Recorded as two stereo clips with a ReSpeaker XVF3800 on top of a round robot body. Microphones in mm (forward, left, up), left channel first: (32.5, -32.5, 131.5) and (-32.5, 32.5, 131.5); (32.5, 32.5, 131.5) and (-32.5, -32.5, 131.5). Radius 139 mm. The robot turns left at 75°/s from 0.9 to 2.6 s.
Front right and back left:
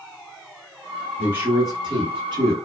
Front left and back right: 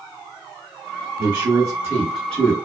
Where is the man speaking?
160° right, 1.3 m; by 2.5 s 100° left, 1.3 m.